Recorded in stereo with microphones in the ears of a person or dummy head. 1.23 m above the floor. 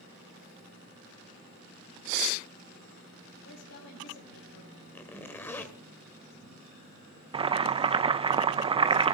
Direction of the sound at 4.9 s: 20° left (ahead or behind).